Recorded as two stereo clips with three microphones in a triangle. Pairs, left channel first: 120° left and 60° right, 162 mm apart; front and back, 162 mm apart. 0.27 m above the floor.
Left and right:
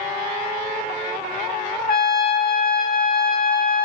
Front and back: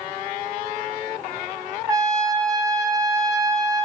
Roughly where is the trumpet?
Behind left.